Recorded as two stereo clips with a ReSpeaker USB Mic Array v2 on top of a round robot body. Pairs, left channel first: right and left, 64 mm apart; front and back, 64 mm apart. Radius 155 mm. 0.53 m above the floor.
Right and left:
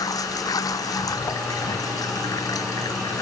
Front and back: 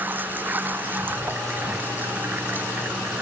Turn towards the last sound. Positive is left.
turn(degrees=-115)